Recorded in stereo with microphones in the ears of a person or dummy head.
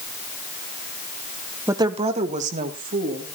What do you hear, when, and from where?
1.7 s a woman speaking: 15° right (ahead or behind), 0.9 m; by 3.4 s 50° right (ahead or behind), 3 m